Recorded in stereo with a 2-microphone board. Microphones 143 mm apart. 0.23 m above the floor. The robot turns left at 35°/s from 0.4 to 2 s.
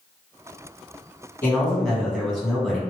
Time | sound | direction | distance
1.4 | a man speaking | 15° left (ahead or behind) | 1.7 m